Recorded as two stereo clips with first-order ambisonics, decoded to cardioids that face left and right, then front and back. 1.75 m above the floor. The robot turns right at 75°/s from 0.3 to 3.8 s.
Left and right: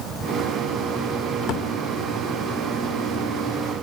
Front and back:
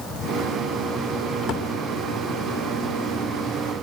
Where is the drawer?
55° left, 2.0 m; by 1.7 s 75° left, 2.0 m.